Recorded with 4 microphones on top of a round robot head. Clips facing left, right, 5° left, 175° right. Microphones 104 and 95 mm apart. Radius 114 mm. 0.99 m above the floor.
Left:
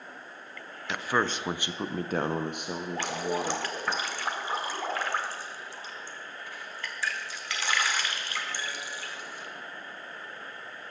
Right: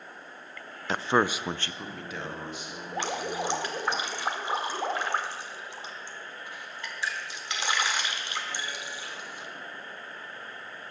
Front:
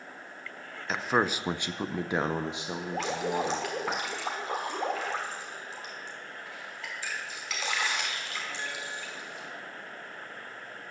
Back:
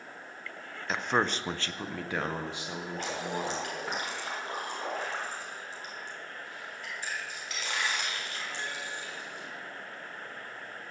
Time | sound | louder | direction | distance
0.9 | a man speaking | right 3 dB, front 1 dB | 85° right | 0.6 m
2.9 | dripping | even, front 5 dB | 20° right | 1.2 m